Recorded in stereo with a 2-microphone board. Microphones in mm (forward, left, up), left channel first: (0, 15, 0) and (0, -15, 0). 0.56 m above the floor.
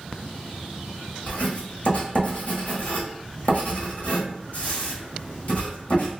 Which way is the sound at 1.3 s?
55° left (ahead or behind).